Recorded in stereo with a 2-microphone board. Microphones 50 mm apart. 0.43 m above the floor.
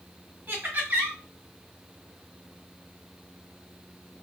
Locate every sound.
0.5 s laughter: 45° right (ahead or behind), 2.0 m